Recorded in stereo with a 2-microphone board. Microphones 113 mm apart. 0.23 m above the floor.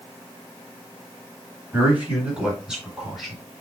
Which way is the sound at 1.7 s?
15° right (ahead or behind).